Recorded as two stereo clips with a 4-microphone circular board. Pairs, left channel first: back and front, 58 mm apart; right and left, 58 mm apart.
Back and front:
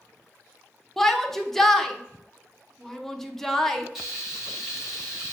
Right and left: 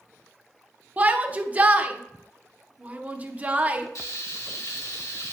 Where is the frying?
85° right, 2 m.